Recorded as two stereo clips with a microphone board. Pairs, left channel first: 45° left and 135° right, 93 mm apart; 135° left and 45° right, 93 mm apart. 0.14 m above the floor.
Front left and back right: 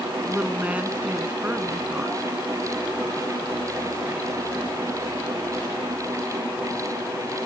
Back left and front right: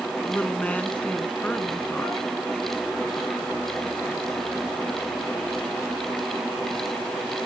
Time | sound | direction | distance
0.2 | a woman speaking | straight behind | 1.2 m